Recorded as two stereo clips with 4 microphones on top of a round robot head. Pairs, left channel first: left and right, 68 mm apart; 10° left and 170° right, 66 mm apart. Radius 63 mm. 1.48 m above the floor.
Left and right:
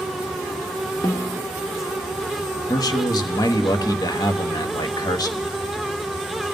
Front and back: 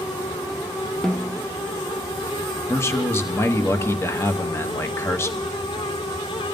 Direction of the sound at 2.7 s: 60° left.